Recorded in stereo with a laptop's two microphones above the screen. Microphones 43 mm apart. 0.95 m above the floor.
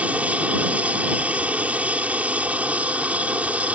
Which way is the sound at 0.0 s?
35° right (ahead or behind).